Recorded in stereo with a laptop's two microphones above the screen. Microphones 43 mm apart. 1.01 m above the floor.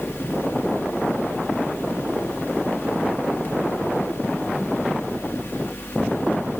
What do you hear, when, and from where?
0.0 s a fan: 60° left (ahead or behind), 1.7 m